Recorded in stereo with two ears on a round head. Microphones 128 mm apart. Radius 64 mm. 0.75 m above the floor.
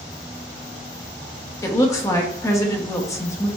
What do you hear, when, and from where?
1.6 s a woman speaking: 20° left (ahead or behind), 0.9 m